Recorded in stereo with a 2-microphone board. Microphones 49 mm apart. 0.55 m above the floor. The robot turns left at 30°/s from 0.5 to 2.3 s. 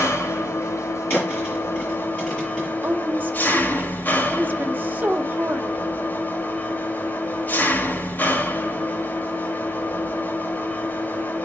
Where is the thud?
45° left (ahead or behind), 6.5 m; by 2.7 s 5° left (ahead or behind), 6.5 m.